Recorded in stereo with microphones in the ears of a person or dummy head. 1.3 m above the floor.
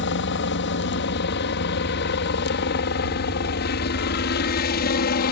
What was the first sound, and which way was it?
A helicopter, 60° left (ahead or behind).